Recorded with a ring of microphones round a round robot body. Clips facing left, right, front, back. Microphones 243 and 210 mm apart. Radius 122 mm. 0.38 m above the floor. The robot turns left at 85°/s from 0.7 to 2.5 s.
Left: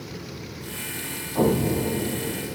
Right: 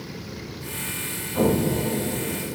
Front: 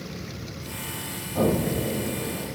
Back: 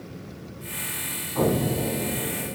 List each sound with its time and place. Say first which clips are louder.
1.4 s an explosion: even, even; 25° right, 1.6 m; by 2.6 s 125° right, 1.6 m